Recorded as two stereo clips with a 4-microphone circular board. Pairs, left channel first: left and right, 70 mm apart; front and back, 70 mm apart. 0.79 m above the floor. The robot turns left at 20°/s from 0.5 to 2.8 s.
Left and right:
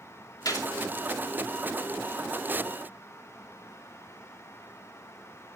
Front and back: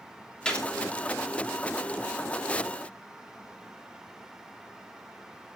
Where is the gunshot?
75° left, 2.5 m; by 0.7 s 70° left, 2.5 m.